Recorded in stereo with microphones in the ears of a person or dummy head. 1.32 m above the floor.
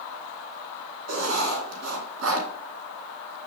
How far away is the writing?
About 2 m.